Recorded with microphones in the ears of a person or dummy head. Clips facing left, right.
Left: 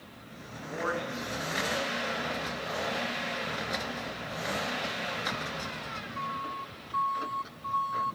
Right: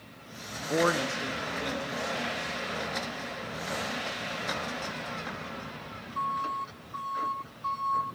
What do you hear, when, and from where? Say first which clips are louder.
0.7 s a man speaking: right 7 dB; 65° right (ahead or behind), 0.5 m; by 3.0 s 45° right (ahead or behind), 4 m